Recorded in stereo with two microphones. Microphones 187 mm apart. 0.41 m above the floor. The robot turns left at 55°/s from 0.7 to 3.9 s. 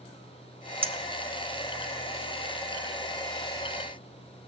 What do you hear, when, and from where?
0.8 s a clink: 30° right (ahead or behind), 0.6 m; by 1.9 s 5° right (ahead or behind), 0.6 m